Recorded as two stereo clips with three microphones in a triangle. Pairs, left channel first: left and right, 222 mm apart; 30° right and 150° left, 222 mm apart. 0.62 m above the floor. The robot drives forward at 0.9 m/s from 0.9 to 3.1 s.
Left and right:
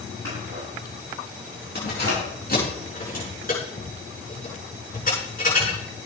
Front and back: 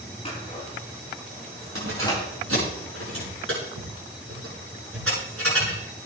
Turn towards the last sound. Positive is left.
turn(degrees=140)